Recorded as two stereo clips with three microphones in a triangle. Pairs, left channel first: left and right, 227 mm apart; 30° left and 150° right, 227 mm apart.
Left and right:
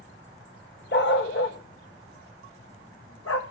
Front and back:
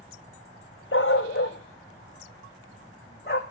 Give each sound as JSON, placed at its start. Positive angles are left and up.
{"t": 0.9, "sound": "a dog barking", "azimuth_deg": 55, "distance_m": 1.4}